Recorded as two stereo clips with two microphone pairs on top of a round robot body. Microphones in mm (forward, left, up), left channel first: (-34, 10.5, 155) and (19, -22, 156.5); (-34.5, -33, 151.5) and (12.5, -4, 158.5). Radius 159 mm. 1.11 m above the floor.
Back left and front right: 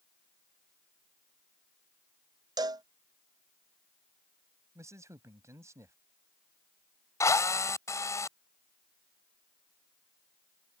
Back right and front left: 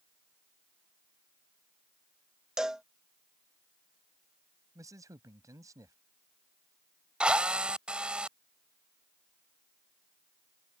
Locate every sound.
2.6 s a cowbell: 50° right
4.8 s a man speaking: 10° left
7.2 s a drill: 105° left